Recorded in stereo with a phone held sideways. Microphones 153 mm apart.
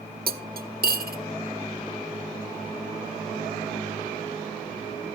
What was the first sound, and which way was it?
Cutlery clinking, 85° right.